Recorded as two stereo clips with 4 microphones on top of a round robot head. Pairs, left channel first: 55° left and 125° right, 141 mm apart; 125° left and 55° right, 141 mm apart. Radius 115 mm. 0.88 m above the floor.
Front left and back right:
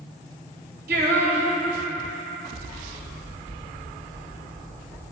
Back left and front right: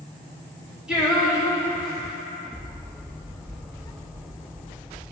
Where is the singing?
140° right, 1.1 m.